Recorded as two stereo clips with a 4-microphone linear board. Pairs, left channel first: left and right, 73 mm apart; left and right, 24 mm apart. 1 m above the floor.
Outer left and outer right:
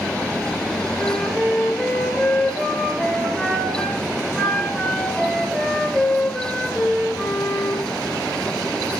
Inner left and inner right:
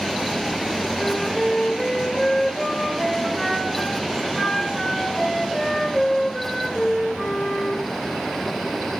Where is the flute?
10° left (ahead or behind), 4.5 m.